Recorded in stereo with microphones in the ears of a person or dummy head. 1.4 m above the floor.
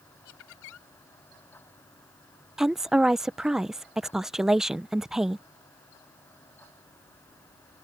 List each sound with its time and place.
0.2 s laughter: 80° left
2.6 s a woman speaking: 5° right (ahead or behind)